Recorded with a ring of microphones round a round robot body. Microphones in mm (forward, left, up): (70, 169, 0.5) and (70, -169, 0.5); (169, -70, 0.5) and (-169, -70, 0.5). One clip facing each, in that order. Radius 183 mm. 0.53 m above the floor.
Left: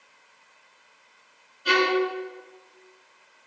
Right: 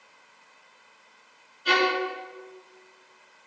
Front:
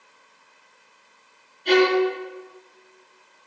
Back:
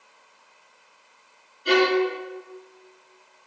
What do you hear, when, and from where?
1.6 s a violin: 100° left, 6 m